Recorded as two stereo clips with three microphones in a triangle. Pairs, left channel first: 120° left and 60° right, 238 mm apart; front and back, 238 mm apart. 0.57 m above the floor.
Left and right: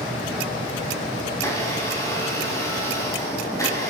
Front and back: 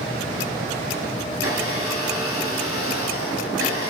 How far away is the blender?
About 3.5 m.